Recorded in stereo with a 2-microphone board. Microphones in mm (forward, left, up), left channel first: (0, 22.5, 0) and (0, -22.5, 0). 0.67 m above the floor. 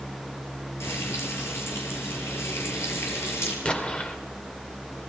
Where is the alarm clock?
No alarm clock in this recording.